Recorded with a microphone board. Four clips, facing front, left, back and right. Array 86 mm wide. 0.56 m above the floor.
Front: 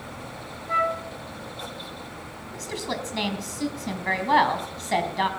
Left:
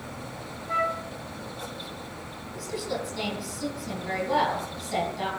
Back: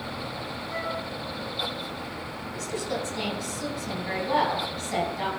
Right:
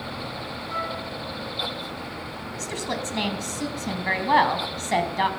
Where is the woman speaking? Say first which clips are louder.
Right 1 dB, even; 50° right, 4 m.